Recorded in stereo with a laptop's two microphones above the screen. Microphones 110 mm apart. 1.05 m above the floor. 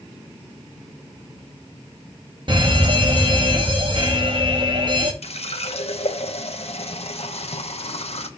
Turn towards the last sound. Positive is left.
turn(degrees=70)  # may be behind; listen again after turning